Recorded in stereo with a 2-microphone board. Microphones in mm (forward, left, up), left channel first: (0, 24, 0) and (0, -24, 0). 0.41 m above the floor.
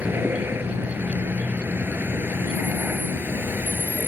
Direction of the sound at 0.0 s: 55° right (ahead or behind).